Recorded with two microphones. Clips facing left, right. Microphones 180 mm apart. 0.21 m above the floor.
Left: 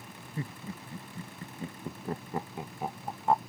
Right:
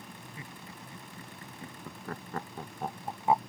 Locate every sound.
0.4 s laughter: 40° left (ahead or behind); by 3.4 s 10° right (ahead or behind)